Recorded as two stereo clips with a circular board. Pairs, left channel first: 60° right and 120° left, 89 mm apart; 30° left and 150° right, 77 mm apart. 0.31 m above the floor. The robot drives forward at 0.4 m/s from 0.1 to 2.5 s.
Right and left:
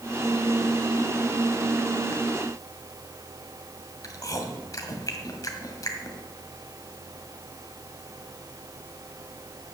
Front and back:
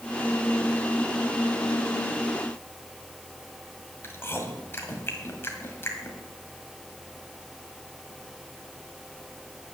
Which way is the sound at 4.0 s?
25° right.